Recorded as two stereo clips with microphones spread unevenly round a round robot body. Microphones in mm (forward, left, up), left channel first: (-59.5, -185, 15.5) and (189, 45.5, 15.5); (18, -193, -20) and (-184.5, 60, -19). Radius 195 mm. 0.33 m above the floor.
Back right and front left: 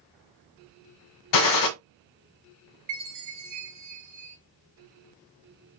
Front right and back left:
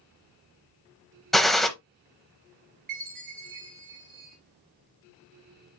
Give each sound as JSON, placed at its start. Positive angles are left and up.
{"t": 1.3, "sound": "a gunshot", "azimuth_deg": -140, "distance_m": 0.9}
{"t": 2.9, "sound": "a chime", "azimuth_deg": 65, "distance_m": 3.0}